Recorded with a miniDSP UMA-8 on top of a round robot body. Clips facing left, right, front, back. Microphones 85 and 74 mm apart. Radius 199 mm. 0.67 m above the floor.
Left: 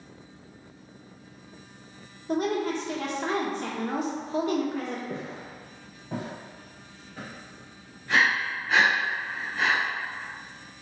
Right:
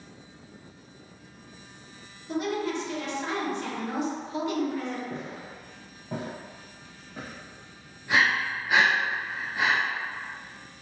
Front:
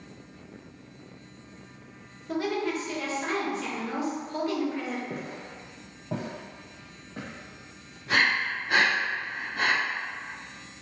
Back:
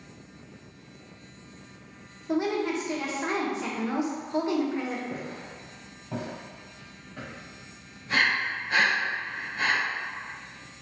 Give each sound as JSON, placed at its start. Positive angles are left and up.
{"t": 2.3, "sound": "a woman speaking", "azimuth_deg": 115, "distance_m": 1.1}
{"t": 5.1, "sound": "footsteps", "azimuth_deg": 40, "distance_m": 0.9}
{"t": 8.1, "sound": "breathing", "azimuth_deg": -15, "distance_m": 1.1}